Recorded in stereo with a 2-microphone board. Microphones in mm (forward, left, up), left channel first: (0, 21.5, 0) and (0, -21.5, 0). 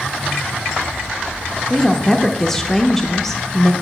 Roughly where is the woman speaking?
Centre.